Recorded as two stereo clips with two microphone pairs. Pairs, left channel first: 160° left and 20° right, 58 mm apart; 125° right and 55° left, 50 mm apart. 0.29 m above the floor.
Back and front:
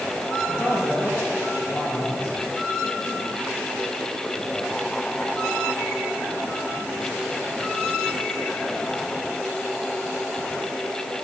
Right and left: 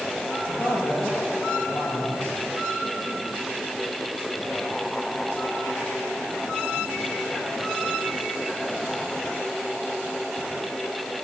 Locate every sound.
0.5 s a man speaking: 135° right, 6 m